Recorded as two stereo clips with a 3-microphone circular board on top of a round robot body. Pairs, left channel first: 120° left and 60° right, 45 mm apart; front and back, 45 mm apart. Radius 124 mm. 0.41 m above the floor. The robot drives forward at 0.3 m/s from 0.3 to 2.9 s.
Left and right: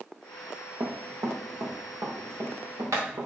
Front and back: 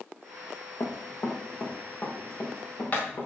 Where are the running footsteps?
40° right, 2.5 m; by 3.3 s 60° right, 4.5 m.